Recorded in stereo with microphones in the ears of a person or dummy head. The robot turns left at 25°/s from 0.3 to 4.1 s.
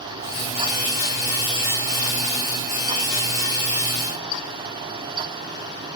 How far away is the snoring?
No snoring in this recording.